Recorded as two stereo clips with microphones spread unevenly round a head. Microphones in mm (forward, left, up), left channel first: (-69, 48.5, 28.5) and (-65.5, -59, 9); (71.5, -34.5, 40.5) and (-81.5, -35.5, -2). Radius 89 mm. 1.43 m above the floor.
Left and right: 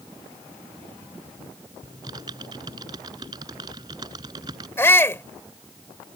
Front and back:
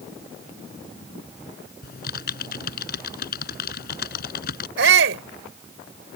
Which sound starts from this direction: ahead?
Typing on a keyboard, at 1.8 s.